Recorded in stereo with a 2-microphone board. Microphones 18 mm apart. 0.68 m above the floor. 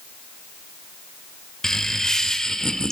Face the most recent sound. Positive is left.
turn(degrees=35)  # may be behind; listen again after turning